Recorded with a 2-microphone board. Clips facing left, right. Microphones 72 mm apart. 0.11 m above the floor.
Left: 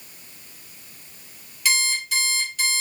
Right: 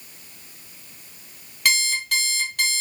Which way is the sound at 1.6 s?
60° right (ahead or behind).